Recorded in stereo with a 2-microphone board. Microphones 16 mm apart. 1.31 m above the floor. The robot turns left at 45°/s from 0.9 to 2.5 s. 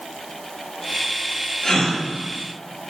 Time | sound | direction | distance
1.6 | a gasp | 50° left (ahead or behind) | 1.3 m